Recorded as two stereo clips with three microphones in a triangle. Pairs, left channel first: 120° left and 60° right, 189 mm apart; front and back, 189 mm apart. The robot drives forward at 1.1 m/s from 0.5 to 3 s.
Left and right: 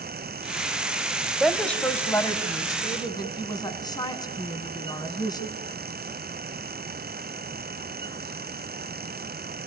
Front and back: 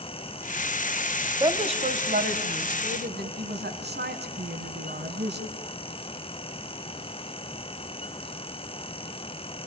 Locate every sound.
1.4 s a woman speaking: 145° right, 1.2 m; by 5.5 s 175° right, 2.5 m